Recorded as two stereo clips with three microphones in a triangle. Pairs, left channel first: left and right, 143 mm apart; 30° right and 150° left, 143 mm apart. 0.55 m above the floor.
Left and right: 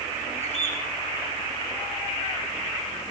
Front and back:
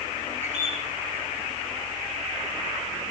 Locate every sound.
0.4 s a bird: 125° left, 7.5 m